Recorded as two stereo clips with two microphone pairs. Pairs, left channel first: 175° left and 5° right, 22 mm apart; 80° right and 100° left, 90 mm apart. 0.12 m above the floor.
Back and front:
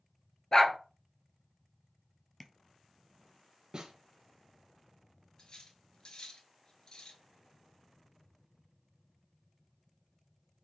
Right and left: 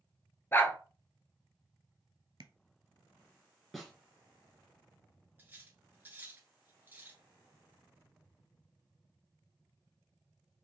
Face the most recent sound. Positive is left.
turn(degrees=160)